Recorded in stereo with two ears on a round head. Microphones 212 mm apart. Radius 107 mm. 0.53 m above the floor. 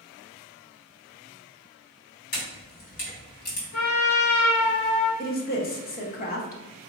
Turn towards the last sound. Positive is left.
turn(degrees=40)  # may be behind; listen again after turning